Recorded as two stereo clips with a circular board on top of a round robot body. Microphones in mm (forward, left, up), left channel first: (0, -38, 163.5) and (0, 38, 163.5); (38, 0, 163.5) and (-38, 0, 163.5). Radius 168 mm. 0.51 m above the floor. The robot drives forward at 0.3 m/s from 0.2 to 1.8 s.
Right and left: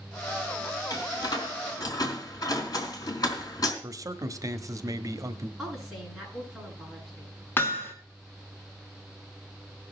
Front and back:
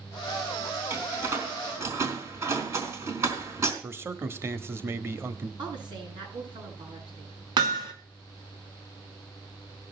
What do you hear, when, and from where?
0.9 s a door slam: 125° right, 3.5 m; by 3.7 s 130° right, 3.5 m
3.8 s a man speaking: 125° left, 1.4 m
5.6 s a woman speaking: straight behind, 7.5 m
7.6 s hammering: 155° right, 1.9 m